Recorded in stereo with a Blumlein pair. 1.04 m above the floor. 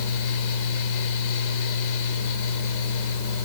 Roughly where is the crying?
I don't hear crying.